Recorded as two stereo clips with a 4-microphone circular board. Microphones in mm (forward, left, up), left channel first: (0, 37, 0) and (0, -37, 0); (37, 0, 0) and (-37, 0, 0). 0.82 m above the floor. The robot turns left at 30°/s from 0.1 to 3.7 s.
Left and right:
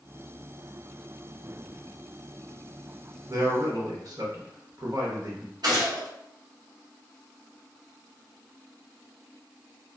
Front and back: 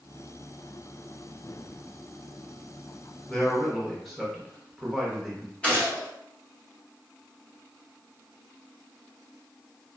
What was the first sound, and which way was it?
A man speaking, 75° right.